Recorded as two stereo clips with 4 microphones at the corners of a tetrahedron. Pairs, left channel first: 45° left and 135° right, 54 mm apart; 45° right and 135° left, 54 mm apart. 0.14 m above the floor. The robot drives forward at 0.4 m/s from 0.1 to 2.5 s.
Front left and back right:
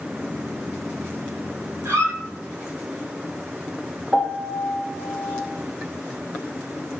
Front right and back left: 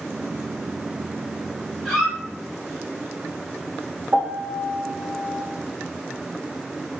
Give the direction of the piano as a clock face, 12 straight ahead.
7 o'clock.